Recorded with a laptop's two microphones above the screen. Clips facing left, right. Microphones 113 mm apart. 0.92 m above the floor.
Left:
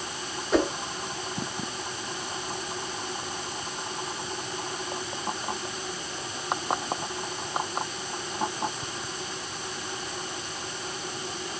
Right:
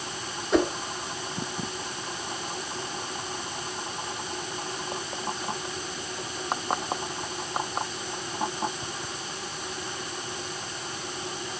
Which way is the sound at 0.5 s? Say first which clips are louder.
Right 1 dB; centre (ahead or behind).